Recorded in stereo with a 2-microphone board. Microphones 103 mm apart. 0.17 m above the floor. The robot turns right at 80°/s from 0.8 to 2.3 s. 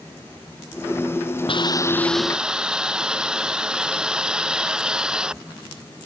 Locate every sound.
1.5 s a hiss: 120° left; by 5.4 s 175° right